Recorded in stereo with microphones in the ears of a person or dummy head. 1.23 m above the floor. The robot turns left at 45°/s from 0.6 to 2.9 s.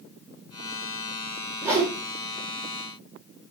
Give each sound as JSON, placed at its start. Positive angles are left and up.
{"t": 1.6, "sound": "a whoosh", "side_deg": -10, "distance_m": 5.0}